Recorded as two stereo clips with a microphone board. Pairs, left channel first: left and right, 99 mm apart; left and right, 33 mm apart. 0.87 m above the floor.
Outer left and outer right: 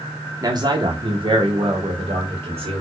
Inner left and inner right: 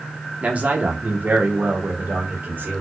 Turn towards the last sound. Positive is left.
turn(degrees=-60)  # may be behind; listen again after turning